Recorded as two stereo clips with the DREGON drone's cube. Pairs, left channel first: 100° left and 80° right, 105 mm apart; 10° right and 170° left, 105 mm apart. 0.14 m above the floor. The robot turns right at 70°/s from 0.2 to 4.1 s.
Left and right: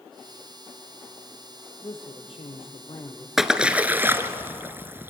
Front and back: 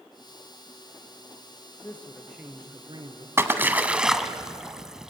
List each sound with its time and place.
1.8 s a man speaking: 50° left, 3 m; by 3.3 s 155° left, 3 m
3.4 s a splash: 165° right, 1.3 m; by 5.1 s 115° right, 1.3 m